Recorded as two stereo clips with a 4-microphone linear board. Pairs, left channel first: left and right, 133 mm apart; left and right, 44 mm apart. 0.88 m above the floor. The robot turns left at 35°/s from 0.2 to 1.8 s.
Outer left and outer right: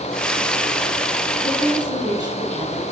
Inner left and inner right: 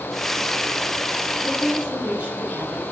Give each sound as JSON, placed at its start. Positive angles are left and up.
{"t": 1.4, "sound": "a woman speaking", "side_deg": -20, "distance_m": 7.0}